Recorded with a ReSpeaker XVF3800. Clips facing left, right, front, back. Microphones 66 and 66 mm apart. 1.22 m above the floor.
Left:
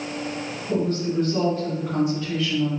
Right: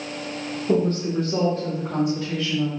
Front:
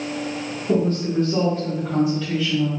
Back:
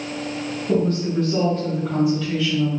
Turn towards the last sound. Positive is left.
turn(degrees=-90)